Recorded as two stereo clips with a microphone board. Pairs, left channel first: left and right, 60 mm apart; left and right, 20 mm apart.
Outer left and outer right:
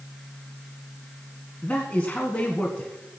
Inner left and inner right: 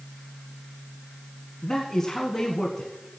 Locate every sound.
1.6 s a man speaking: 20° left (ahead or behind), 1.3 m